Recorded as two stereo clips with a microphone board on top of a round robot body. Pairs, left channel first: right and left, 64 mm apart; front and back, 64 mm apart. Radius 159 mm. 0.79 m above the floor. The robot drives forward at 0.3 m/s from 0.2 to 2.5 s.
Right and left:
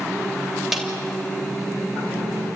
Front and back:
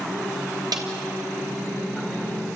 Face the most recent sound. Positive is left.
turn(degrees=175)